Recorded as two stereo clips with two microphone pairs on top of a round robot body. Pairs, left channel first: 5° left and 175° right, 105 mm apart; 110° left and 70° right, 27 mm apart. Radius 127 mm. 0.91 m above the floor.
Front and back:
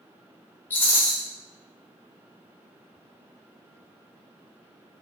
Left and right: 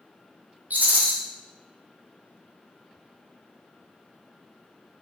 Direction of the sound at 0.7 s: 70° right.